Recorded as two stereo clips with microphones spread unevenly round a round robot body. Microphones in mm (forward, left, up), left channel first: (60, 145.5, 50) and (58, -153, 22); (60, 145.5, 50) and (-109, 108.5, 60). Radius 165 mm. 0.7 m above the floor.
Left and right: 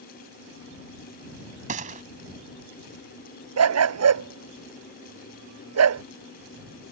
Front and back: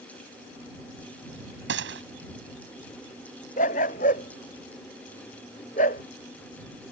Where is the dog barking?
55° right.